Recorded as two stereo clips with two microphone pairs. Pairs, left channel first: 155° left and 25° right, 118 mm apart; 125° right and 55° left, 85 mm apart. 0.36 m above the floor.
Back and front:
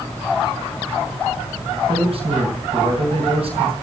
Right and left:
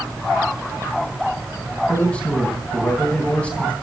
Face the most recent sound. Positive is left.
turn(degrees=-50)